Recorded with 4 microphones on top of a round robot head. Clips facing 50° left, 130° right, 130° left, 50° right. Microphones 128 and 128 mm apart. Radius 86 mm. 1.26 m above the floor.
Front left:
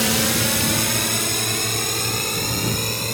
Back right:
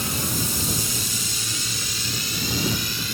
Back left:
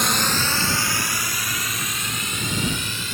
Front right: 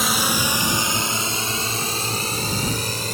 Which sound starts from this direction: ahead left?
A drone, at 0.0 s.